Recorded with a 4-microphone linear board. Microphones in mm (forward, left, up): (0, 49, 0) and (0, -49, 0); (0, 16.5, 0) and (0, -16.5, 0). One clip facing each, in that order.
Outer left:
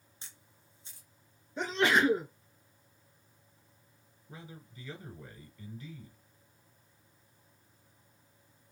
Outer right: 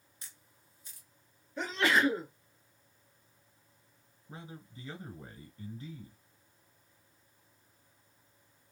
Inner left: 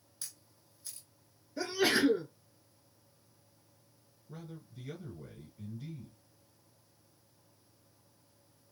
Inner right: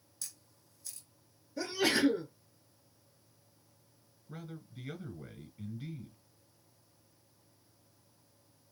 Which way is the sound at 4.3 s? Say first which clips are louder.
Outer right 2 dB, inner right 1 dB; 30° right (ahead or behind).